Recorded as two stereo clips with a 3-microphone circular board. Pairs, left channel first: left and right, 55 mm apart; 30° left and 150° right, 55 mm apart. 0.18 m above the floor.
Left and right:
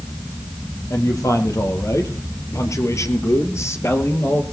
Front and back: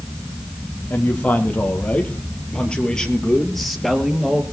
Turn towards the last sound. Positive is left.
turn(degrees=130)